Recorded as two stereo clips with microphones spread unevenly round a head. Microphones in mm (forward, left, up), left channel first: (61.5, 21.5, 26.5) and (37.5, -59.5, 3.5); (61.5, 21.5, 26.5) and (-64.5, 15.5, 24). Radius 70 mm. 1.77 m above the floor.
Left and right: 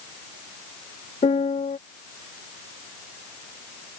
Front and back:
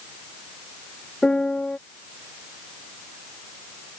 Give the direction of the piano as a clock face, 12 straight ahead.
9 o'clock.